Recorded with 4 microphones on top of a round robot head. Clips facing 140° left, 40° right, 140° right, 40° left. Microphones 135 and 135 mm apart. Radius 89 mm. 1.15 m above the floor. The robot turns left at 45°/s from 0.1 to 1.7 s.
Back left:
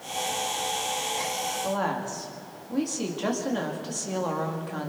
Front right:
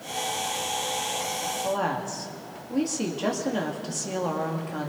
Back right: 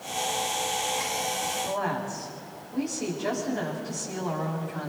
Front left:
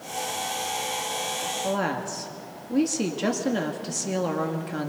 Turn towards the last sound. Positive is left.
turn(degrees=45)